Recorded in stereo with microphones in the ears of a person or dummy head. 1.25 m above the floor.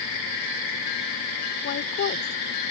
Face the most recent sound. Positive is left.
turn(degrees=55)  # may be behind; listen again after turning